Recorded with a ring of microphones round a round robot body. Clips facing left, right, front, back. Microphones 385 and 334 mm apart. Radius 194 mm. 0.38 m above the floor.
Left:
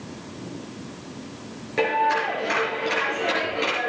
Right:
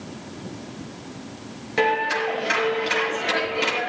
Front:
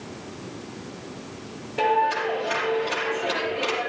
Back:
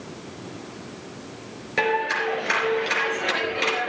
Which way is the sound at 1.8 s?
165° right.